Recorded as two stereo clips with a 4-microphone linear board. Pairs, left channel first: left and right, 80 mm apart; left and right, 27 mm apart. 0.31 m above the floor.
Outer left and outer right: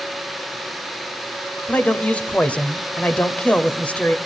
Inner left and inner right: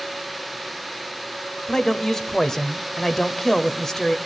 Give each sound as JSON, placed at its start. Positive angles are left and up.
{"t": 1.7, "sound": "a man speaking", "side_deg": 15, "distance_m": 0.9}